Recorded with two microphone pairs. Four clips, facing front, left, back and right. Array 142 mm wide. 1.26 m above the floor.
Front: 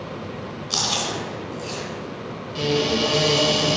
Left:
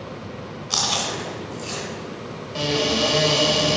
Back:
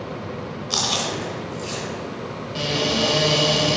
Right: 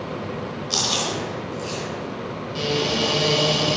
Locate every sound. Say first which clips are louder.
0.7 s chewing: left 1 dB, back 1 dB; 110° left, 2.5 m
2.5 s a cupboard door: left 1 dB, front 2 dB; 120° left, 3 m